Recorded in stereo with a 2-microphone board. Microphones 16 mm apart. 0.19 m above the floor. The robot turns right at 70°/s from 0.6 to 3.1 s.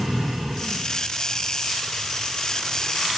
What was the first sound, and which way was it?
Only background noise.